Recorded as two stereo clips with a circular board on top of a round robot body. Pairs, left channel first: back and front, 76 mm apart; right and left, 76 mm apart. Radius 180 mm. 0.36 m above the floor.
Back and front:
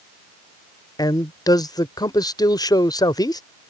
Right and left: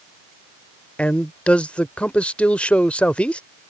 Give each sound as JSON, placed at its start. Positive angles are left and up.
{"t": 1.0, "sound": "a man speaking", "azimuth_deg": -160}